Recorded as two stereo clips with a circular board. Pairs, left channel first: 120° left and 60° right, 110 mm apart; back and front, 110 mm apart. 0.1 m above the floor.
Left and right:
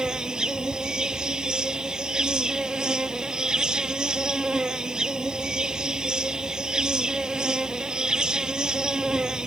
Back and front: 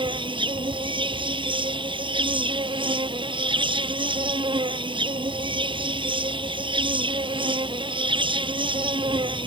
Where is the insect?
20° left.